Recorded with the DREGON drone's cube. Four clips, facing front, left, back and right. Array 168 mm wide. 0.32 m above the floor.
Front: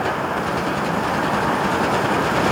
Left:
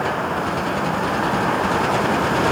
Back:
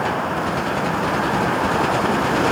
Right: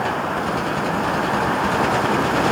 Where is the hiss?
I don't hear a hiss.